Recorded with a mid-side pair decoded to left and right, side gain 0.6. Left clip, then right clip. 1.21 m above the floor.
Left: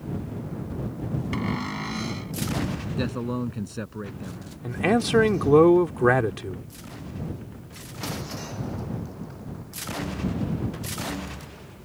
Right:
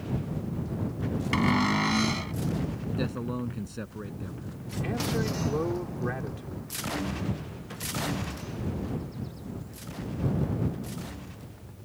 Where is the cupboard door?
30° right.